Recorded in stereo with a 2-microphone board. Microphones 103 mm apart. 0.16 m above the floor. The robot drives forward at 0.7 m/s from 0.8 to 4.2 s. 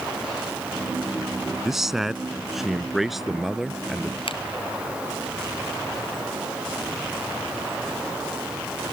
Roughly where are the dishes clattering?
I don't hear dishes clattering.